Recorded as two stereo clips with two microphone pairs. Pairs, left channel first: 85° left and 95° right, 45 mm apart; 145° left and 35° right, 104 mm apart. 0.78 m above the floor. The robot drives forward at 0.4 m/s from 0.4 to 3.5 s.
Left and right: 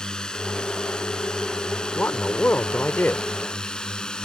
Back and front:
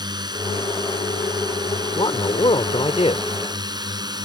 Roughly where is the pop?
I don't hear a pop.